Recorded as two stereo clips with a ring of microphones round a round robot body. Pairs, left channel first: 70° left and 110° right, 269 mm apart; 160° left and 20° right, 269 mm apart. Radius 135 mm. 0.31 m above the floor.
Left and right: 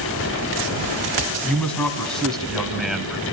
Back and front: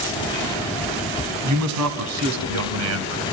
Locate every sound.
1.4 s a man speaking: 15° right, 3 m; by 3.2 s 25° right, 2 m